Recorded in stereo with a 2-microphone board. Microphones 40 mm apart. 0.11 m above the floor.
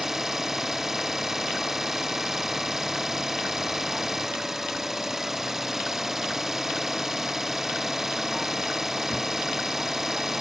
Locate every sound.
0.0 s an engine running: 10° right (ahead or behind)